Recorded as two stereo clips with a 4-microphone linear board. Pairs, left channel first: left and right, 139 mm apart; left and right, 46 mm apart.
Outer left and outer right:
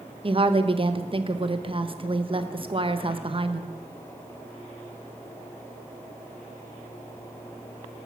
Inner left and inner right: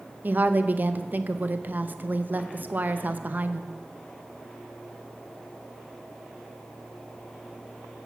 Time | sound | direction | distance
0.2 | a woman speaking | 40° right (ahead or behind) | 0.6 m